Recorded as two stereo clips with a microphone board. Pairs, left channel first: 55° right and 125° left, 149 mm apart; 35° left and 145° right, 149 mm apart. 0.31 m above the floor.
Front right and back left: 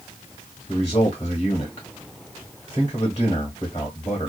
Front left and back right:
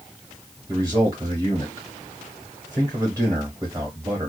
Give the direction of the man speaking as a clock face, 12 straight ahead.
3 o'clock.